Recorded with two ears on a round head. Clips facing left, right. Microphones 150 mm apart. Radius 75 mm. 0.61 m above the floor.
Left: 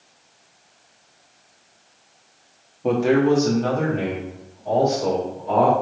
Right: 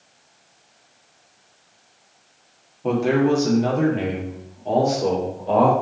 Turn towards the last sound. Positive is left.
turn(degrees=-40)  # may be behind; listen again after turning